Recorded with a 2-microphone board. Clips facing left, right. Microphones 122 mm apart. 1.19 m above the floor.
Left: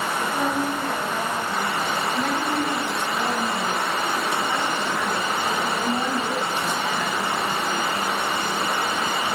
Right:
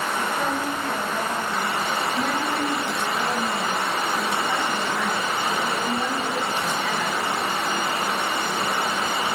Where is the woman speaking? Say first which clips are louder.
Left 3 dB; 5° right (ahead or behind), 9 m; by 7.2 s 15° left (ahead or behind), 10 m.